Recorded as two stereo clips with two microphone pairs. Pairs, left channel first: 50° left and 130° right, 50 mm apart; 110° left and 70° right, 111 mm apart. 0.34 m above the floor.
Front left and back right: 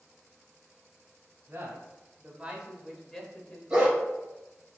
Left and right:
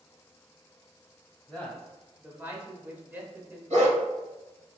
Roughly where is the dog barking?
Ahead right.